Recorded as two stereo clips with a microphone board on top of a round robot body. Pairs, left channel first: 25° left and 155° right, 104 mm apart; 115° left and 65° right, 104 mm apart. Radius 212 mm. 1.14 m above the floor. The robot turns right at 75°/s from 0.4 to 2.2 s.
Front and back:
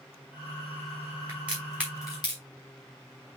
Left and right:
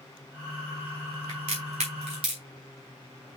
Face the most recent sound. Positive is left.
turn(degrees=-30)